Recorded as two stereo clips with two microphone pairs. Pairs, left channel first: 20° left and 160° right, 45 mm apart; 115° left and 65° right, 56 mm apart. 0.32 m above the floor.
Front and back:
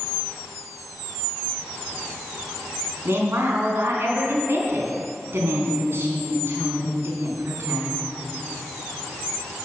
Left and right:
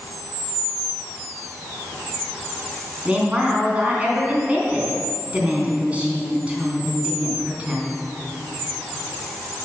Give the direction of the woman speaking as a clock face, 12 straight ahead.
4 o'clock.